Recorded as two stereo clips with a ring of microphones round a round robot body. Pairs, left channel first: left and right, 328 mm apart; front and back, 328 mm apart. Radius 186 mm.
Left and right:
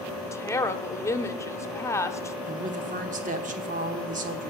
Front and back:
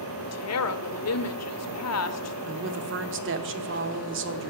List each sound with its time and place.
0.3 s a woman speaking: 10° left, 0.9 m
2.5 s a woman speaking: 145° right, 1.0 m